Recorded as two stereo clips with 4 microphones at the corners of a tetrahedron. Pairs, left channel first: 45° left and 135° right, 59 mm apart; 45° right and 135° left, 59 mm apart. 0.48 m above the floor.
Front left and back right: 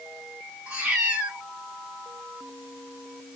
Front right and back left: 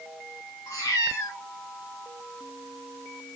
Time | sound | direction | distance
0.7 | a cat meowing | 70° right | 2.0 m